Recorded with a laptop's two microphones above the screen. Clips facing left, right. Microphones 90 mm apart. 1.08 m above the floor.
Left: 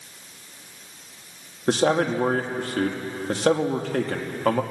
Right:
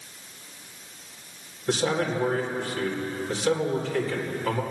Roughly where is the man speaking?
Left.